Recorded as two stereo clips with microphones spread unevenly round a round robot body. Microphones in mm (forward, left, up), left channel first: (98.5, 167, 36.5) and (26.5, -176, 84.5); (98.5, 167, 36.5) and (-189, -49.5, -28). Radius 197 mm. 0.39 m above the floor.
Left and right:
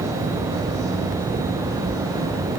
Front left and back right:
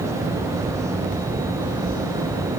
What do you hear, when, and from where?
Only background noise.